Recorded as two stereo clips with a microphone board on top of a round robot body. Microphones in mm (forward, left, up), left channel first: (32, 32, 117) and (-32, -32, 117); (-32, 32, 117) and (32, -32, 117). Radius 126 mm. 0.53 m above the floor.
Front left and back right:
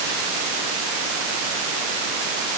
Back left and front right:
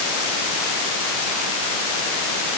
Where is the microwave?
I don't hear a microwave.